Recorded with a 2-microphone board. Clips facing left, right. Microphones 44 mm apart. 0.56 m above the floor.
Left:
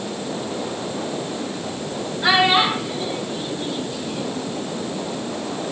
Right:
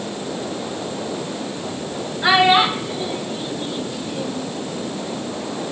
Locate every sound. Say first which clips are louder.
2.2 s a child speaking: right 2 dB; 10° right (ahead or behind), 2.5 m; by 4.5 s 5° right (ahead or behind), 4 m